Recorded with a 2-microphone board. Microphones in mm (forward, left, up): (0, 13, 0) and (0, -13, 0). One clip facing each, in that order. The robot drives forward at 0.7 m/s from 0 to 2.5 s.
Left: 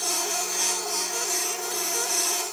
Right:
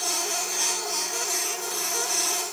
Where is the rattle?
No rattle in this recording.